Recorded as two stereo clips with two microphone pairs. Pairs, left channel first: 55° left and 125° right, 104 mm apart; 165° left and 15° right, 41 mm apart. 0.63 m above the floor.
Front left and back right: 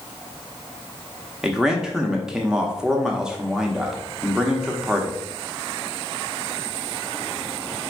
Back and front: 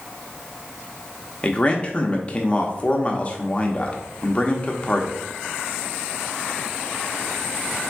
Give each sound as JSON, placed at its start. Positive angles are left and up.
{"t": 1.4, "sound": "a man speaking", "azimuth_deg": 155, "distance_m": 0.8}